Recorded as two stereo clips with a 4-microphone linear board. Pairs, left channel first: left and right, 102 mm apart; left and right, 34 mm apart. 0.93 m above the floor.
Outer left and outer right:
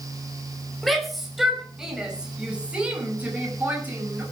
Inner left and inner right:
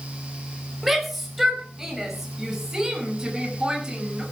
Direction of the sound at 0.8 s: Centre (ahead or behind).